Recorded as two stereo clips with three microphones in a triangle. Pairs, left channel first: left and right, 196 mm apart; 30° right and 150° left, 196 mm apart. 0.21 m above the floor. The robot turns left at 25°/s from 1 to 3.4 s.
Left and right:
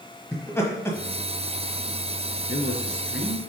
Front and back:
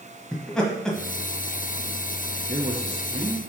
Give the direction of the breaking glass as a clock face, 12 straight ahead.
I don't hear breaking glass.